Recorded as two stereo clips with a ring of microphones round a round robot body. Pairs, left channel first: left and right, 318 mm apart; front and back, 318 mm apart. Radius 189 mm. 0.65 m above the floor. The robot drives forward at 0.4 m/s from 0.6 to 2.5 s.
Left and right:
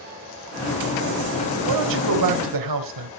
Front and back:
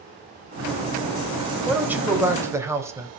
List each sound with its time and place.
1.7 s a man speaking: 95° right, 4.5 m; by 3.1 s 100° right, 4.5 m